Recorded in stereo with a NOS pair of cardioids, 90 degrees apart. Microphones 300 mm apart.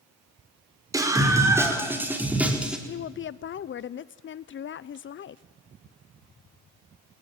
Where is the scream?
10° right, 6 m; by 2.8 s 5° right, 5 m.